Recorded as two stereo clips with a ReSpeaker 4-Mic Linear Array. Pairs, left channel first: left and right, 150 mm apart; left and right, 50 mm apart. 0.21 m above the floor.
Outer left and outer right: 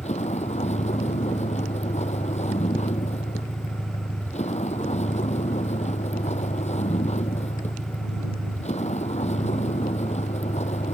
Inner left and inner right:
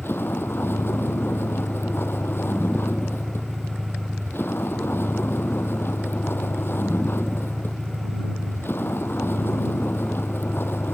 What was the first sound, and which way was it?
A vehicle, 45° left (ahead or behind).